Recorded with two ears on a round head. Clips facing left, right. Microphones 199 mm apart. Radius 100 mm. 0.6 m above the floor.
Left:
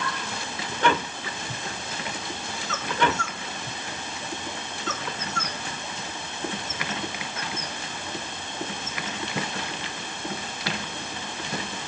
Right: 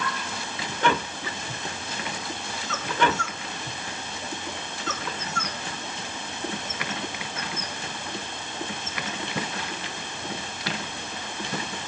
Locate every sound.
Only background noise.